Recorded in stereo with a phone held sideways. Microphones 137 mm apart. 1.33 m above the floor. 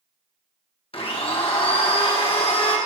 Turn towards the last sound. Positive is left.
turn(degrees=40)  # may be behind; listen again after turning